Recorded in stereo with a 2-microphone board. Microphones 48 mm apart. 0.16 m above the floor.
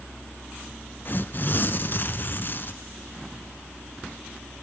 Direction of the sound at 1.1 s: 40° left (ahead or behind).